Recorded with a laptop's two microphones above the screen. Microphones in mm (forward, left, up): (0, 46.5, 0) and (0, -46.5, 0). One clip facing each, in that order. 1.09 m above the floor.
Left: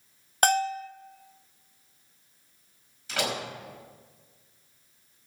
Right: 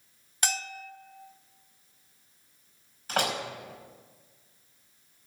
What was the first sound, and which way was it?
A bell, 50° left (ahead or behind).